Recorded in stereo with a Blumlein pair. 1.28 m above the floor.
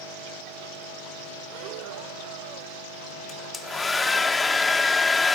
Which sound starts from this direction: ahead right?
Breathing, at 1.4 s.